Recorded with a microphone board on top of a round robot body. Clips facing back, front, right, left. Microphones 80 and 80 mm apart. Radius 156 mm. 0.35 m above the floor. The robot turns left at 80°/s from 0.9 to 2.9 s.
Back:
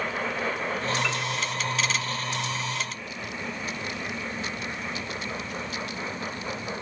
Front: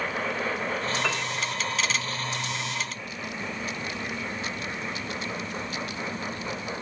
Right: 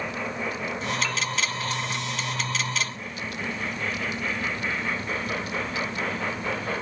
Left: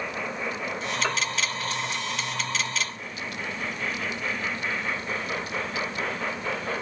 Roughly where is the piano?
Ahead left.